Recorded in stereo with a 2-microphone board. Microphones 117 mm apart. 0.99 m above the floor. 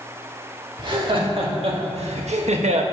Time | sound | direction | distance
0.8 | laughter | 45° right (ahead or behind) | 2 m